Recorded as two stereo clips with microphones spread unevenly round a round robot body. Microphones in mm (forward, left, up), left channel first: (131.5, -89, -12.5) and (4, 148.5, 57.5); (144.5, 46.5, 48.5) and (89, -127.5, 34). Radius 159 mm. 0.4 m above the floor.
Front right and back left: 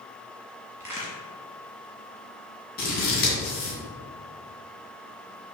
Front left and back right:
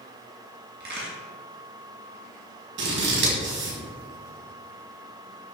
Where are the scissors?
115° right, 2 m.